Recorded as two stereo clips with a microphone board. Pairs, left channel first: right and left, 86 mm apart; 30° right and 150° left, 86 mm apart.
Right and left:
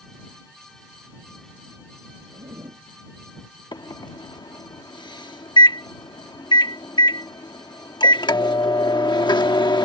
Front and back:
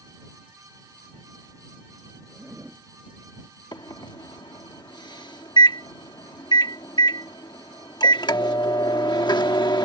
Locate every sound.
2.3 s a zipper: 75° left
3.7 s a microwave: 60° right